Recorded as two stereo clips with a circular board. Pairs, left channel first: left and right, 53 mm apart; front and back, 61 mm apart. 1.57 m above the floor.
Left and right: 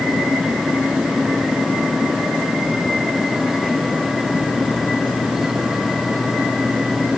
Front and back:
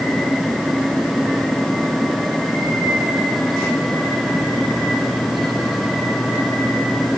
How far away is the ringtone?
No ringtone in this recording.